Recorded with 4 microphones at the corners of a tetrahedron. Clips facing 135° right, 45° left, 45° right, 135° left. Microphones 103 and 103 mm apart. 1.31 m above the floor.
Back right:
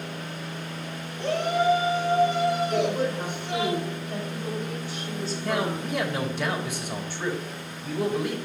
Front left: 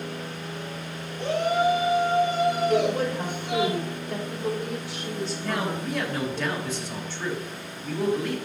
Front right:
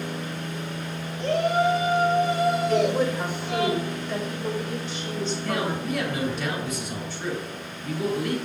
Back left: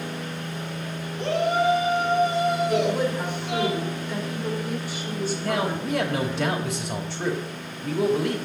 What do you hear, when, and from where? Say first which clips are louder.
1.2 s a shout: front left 1 dB, even; 120° left, 4 m
2.7 s a woman speaking: front left 2 dB, front right 1 dB; 55° left, 4 m
5.4 s a man speaking: back right 3 dB, back left 3 dB; 150° left, 2.5 m